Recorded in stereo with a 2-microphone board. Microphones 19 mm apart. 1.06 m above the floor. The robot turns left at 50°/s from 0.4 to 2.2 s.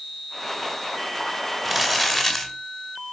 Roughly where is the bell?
I don't hear a bell.